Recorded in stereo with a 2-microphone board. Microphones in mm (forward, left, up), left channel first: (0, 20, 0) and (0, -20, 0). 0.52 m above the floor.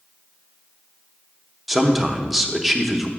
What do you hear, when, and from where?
1.7 s a man speaking: centre (ahead or behind), 0.7 m